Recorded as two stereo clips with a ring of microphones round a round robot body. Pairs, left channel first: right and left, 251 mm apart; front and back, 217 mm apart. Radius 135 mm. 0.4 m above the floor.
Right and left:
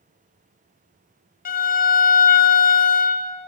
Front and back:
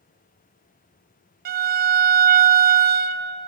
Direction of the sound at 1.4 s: 140° right.